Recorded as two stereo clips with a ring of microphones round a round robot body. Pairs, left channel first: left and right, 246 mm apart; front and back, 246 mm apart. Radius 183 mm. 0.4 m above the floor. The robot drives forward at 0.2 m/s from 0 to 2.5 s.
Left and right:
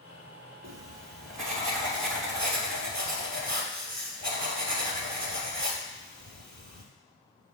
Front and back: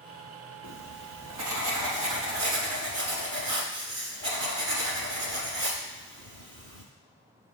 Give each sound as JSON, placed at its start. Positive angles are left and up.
{"t": 0.6, "sound": "writing", "azimuth_deg": -140, "distance_m": 0.7}